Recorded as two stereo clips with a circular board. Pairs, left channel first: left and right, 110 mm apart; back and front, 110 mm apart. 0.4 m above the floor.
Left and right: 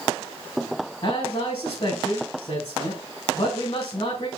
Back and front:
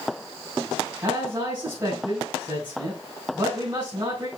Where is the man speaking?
55° left, 4 m.